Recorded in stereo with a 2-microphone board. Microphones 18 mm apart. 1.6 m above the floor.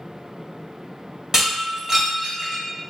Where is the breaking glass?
35° right (ahead or behind), 1.5 m.